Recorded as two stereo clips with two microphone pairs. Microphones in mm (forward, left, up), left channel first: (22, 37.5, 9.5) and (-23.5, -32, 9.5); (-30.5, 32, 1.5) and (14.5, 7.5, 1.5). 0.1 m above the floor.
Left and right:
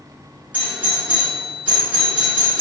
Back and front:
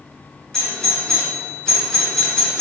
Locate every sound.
0.5 s a doorbell: 150° right, 1.5 m